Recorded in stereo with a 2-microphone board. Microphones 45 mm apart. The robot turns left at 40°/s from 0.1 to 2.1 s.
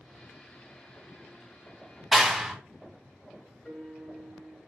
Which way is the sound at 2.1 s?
5° right (ahead or behind).